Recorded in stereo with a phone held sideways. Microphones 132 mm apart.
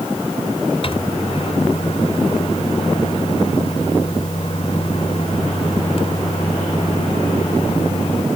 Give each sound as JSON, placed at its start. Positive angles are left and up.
{"t": 0.8, "sound": "a microwave", "side_deg": 45}